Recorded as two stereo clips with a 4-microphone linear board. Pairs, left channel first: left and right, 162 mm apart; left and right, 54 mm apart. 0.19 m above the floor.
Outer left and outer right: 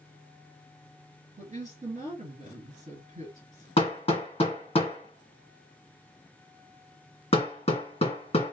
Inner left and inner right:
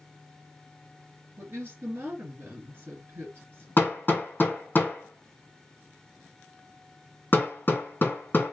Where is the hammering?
35° left (ahead or behind), 1.8 m.